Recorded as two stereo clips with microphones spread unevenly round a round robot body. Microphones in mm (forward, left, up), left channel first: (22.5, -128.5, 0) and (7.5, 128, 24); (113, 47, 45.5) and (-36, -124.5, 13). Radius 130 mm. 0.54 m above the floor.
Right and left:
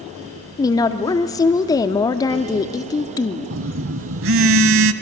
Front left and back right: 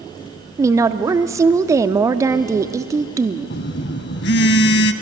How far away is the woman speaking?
About 0.6 m.